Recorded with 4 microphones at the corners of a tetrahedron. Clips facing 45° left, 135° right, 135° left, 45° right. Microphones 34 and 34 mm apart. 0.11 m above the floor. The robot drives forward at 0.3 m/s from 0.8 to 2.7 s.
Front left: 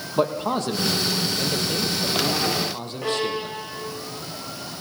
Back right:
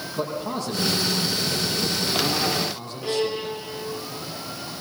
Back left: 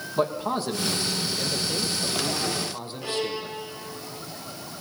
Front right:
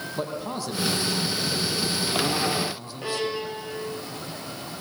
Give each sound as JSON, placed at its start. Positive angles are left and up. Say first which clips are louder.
{"t": 0.2, "sound": "a man speaking", "louder": "front left 6 dB, back left 7 dB", "azimuth_deg": 75, "distance_m": 4.5}
{"t": 3.0, "sound": "a violin", "louder": "even, front right 2 dB", "azimuth_deg": 20, "distance_m": 6.5}